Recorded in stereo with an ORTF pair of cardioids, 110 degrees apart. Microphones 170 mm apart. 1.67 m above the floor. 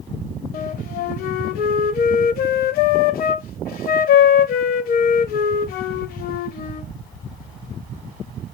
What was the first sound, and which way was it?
A flute, 65° left.